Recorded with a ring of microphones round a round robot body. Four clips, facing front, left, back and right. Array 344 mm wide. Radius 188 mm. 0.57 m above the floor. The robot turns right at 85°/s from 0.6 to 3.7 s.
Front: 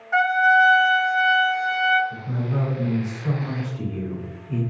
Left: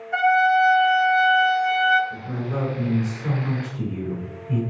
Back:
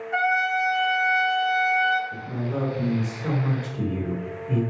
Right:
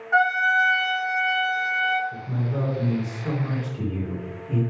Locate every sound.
0.1 s a trumpet: 70° right, 4 m; by 2.0 s 50° left, 4 m
2.1 s a man speaking: 55° left, 4 m; by 4.6 s 165° right, 4 m